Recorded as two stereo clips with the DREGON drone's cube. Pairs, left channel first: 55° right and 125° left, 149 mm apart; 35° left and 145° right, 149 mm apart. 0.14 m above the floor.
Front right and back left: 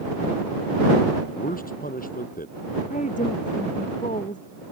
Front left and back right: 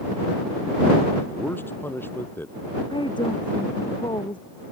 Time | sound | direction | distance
1.3 | a man speaking | 40° right | ?
2.9 | a woman speaking | 25° right | ?